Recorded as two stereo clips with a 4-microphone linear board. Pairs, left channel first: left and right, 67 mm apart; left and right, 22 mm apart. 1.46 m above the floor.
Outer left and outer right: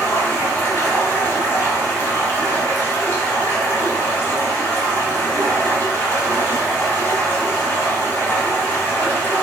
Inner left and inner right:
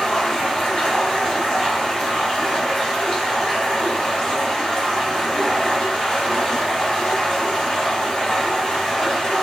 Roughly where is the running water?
Left.